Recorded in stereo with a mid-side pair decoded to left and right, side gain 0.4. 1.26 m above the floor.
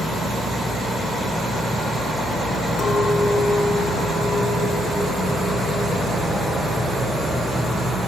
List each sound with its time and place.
2.8 s a clink: 45° left, 0.9 m